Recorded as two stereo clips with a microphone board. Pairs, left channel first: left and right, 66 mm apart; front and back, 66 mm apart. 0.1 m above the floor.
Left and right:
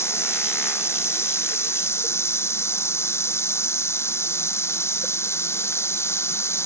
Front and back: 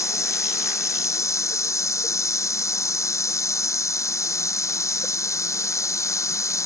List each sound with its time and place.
0.0 s running water: 40° left